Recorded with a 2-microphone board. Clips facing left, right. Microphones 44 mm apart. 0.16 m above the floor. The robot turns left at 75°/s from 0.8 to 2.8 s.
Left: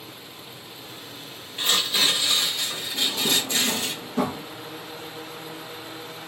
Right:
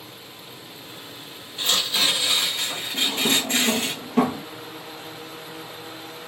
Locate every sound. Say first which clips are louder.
1.6 s tearing paper: even; 35° left, 2 m; by 3.9 s 60° right, 2 m
2.9 s a drawer: right 2 dB; 55° right (ahead or behind), 1.8 m